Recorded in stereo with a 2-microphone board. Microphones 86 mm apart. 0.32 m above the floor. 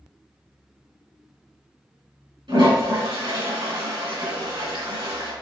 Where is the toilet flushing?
70° right (ahead or behind), 3.5 m.